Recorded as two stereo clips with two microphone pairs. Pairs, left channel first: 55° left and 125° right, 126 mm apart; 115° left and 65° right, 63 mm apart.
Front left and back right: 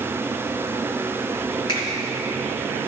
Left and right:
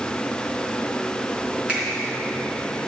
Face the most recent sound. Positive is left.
turn(degrees=5)